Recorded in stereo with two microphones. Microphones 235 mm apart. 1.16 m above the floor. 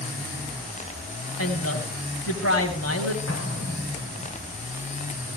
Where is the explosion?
80° left, 3.5 m.